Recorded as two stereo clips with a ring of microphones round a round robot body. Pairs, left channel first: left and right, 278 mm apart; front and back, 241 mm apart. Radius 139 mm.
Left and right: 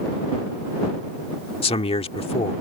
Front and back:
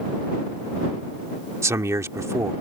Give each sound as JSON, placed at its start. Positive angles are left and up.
{"t": 1.6, "sound": "a man speaking", "azimuth_deg": 120}